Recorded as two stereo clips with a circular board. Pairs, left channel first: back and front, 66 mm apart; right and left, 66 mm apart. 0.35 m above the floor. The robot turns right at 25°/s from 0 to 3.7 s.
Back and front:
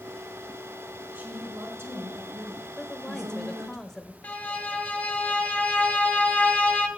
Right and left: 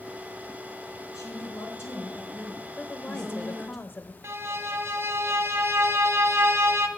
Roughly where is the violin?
Behind left.